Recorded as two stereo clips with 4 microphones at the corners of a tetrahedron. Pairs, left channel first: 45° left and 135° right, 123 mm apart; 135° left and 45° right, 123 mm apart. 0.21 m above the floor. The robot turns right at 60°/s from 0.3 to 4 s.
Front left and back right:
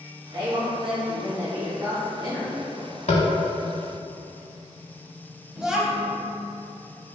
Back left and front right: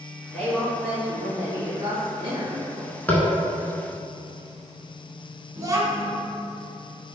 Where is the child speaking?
55° right, 0.6 m.